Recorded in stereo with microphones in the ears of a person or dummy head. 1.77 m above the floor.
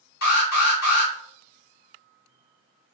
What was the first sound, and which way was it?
An alarm, 55° left (ahead or behind).